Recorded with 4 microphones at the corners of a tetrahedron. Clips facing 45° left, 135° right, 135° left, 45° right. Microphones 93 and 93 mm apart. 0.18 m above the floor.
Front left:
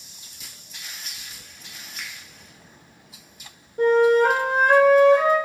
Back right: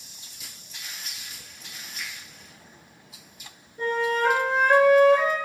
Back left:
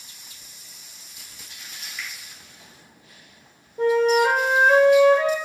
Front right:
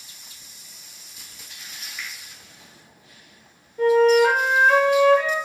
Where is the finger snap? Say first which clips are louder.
Even, even; 40° left, 1.8 m.